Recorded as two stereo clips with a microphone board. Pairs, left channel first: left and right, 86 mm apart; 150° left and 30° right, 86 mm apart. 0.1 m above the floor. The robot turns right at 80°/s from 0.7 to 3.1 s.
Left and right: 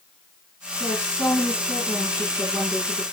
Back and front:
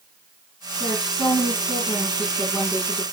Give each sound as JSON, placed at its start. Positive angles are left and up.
{"t": 0.8, "sound": "a woman speaking", "azimuth_deg": 85, "distance_m": 7.5}